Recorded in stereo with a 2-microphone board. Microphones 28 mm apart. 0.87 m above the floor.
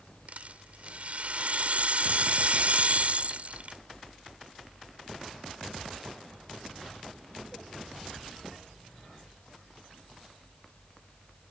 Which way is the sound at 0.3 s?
55° right (ahead or behind).